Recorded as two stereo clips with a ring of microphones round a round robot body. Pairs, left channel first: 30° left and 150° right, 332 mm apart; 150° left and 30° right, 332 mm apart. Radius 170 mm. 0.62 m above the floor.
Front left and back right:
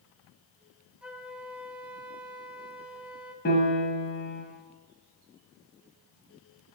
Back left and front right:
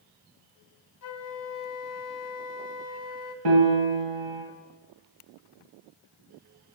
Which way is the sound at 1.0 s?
125° left.